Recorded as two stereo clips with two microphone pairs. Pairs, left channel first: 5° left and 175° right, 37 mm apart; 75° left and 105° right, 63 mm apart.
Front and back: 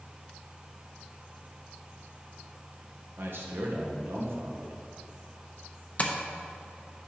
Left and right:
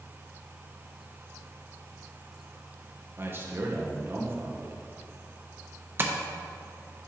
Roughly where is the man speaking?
Behind right.